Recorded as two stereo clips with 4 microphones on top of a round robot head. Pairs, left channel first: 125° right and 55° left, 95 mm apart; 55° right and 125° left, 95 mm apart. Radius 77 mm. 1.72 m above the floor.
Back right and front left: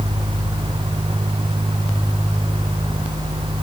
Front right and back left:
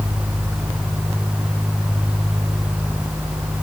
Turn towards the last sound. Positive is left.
No sound to turn to.